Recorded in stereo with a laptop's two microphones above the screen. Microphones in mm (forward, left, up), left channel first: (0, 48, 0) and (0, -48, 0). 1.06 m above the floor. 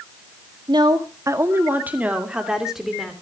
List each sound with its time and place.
0.7 s a woman speaking: 50° right (ahead or behind), 1.6 m; by 3.1 s centre (ahead or behind), 3 m